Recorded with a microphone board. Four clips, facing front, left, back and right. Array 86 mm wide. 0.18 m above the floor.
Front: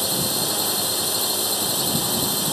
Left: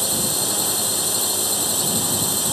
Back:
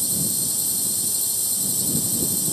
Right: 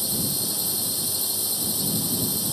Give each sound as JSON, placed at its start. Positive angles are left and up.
{"t": 0.0, "sound": "a drone", "azimuth_deg": 40}